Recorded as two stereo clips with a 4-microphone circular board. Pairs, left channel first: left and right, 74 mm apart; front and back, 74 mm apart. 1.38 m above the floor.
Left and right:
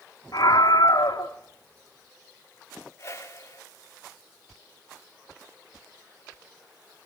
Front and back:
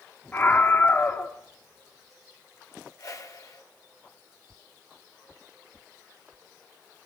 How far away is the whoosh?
About 5 m.